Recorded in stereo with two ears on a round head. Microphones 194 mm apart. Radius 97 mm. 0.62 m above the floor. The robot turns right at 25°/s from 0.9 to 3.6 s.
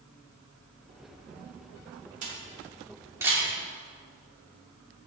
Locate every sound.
2.2 s a camera shutter: 35° right (ahead or behind), 4 m; by 3.5 s 5° right (ahead or behind), 4 m